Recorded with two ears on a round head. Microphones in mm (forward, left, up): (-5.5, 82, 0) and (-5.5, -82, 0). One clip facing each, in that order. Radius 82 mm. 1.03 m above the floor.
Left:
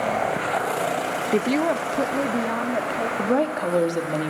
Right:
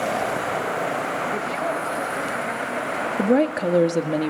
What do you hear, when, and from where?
1.3 s a woman speaking: 45° left (ahead or behind), 0.7 m; by 3.1 s 70° left (ahead or behind), 2.5 m
3.2 s a woman speaking: 25° right (ahead or behind), 1.7 m